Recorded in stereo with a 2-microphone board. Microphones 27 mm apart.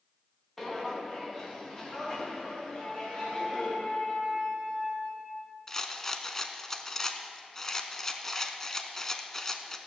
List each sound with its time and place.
0.6 s footsteps: 10° left (ahead or behind), 2.5 m; by 3.7 s 20° left (ahead or behind), 5 m
2.7 s a flute: 45° left (ahead or behind), 2.5 m
5.7 s a rattle: 20° left (ahead or behind), 0.8 m